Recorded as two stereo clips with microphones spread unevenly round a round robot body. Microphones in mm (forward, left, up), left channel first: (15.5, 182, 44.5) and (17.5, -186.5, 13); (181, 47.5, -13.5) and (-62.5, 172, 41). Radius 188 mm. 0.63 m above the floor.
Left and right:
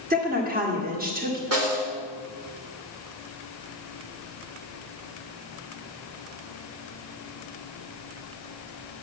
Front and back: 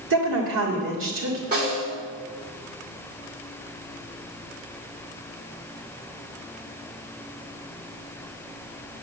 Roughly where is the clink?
No clink in this recording.